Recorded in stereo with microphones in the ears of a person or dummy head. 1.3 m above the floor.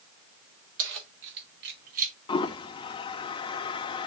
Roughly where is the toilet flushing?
Left.